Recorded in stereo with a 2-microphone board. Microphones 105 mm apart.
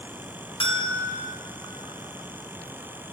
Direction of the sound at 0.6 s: 65° left (ahead or behind).